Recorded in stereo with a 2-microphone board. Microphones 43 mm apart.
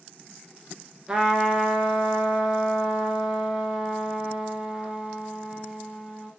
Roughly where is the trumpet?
Centre.